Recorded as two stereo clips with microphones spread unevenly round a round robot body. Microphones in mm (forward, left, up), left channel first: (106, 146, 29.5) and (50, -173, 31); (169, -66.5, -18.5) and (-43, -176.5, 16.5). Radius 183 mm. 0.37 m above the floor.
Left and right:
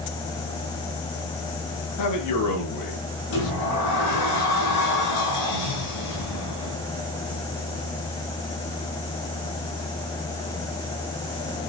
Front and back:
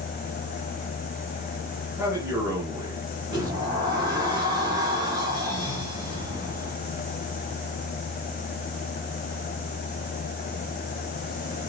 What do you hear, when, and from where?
2.0 s a man speaking: 120° left, 6 m
3.3 s a sliding door: 125° left, 8 m